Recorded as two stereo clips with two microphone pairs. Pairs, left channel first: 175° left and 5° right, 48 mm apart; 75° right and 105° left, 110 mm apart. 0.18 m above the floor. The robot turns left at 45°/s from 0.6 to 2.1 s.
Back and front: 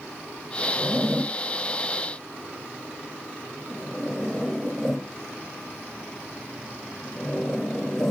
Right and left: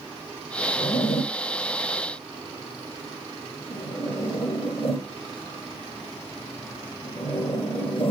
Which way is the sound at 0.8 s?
45° right.